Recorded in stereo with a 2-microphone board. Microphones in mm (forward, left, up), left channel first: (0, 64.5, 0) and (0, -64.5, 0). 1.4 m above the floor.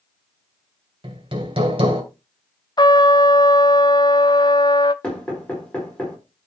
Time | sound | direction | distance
1.0 | hammering | 45° right (ahead or behind) | 2 m
2.8 | a trumpet | 35° left (ahead or behind) | 0.5 m
5.0 | knocking | 10° left (ahead or behind) | 4.5 m